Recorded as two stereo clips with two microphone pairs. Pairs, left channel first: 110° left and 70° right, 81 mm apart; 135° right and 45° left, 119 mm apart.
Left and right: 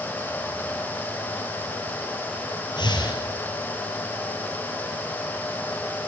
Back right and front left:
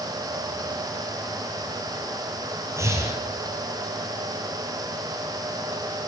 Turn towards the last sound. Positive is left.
turn(degrees=110)